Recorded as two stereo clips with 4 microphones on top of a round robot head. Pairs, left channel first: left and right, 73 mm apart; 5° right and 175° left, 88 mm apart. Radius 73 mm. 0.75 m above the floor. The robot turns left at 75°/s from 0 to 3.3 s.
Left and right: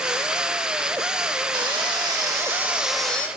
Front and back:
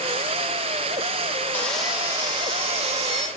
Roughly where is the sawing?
Right.